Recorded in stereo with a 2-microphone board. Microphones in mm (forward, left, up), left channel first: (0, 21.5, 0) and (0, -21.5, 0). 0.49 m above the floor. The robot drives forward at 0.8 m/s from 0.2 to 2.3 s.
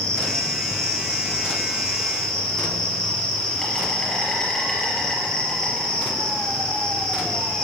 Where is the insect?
20° left (ahead or behind), 3 m; by 7.6 s 15° left (ahead or behind), 4.5 m.